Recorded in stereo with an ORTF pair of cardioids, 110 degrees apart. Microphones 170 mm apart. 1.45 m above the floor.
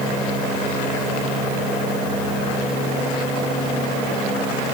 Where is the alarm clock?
No alarm clock in this recording.